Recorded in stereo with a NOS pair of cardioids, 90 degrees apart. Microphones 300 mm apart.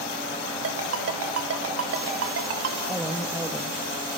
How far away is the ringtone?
About 3 m.